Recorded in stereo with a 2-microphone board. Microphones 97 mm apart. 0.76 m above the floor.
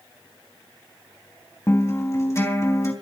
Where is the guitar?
30° left (ahead or behind), 3.5 m.